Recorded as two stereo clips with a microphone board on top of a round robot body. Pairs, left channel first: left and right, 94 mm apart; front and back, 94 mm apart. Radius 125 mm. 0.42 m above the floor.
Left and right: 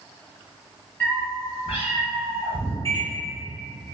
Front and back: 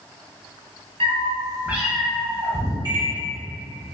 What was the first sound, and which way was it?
A cat meowing, 160° left.